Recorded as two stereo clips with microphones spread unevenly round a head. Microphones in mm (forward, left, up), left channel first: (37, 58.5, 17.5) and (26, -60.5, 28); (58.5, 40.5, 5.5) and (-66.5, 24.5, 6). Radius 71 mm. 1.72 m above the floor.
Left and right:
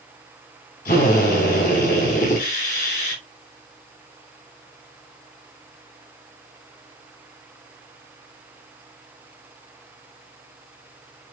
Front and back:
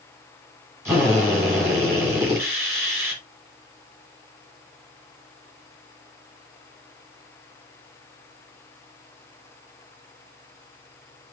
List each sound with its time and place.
0.8 s a drill: 115° left, 7 m